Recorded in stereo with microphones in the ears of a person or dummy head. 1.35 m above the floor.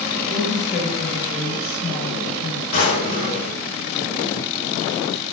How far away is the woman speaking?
About 1.3 m.